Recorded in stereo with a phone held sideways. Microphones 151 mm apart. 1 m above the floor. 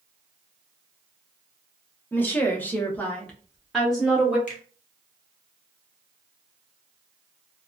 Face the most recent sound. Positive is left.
turn(degrees=60)  # may be behind; listen again after turning